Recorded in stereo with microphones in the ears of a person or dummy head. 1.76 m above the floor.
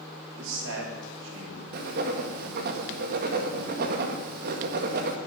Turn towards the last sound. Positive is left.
turn(degrees=-50)  # may be behind; listen again after turning